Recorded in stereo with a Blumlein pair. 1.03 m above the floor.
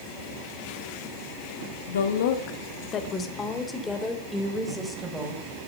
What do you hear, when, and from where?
1.9 s a woman speaking: 65° left, 2.0 m; by 5.4 s 5° right, 5.5 m